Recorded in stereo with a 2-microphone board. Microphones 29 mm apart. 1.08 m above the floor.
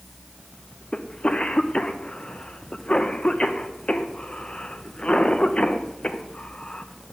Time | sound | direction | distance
0.9 | a cough | 35° left (ahead or behind) | 1.1 m